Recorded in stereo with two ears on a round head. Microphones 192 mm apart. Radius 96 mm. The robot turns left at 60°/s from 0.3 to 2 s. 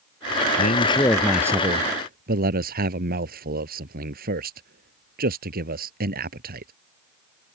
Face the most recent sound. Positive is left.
turn(degrees=-45)